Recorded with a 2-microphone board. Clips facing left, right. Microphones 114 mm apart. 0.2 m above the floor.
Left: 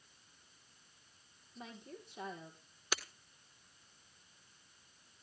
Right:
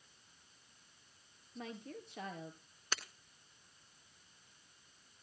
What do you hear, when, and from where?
1.6 s a woman speaking: 60° right (ahead or behind), 4 m
2.9 s breaking glass: 10° left (ahead or behind), 1.5 m